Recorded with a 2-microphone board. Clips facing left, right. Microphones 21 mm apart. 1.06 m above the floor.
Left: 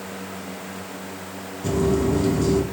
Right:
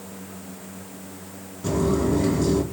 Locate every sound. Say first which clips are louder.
1.6 s footsteps: left 1 dB; 5° right (ahead or behind), 2 m